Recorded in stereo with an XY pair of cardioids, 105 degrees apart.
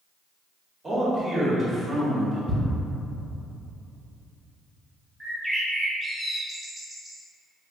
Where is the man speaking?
25° right, 1.8 m.